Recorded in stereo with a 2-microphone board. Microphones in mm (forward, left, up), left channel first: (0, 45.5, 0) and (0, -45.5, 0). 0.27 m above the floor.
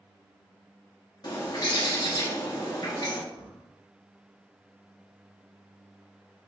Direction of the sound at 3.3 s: 55° left (ahead or behind).